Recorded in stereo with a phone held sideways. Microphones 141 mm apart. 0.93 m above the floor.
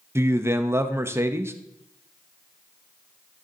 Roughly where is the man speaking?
Centre.